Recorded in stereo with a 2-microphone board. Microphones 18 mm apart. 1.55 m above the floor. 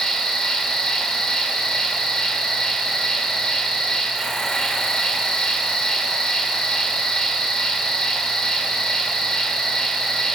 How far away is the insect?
About 0.8 m.